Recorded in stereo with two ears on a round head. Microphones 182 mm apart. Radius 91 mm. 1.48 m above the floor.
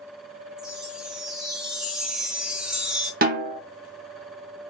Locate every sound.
0.6 s a chime: 5° right (ahead or behind), 0.6 m
3.2 s a snare drum: 45° right (ahead or behind), 0.7 m